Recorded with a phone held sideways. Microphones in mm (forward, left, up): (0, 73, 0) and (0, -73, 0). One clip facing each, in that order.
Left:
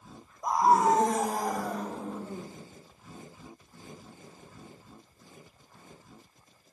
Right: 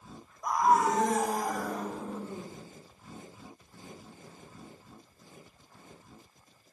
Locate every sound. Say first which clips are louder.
0.4 s a scream: left 2 dB; 25° left (ahead or behind), 0.6 m; by 2.5 s 40° left (ahead or behind), 3 m